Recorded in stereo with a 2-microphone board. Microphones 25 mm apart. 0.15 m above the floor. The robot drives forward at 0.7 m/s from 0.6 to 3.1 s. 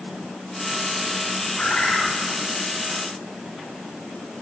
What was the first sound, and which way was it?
A bird, 40° left (ahead or behind).